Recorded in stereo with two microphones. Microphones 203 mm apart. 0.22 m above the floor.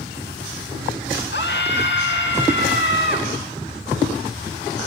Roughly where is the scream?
Left.